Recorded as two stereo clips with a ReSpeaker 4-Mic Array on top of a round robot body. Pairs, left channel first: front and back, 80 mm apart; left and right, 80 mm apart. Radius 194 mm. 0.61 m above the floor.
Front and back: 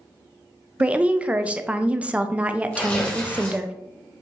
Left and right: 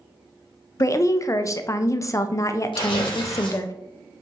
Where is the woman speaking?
115° left, 0.6 m.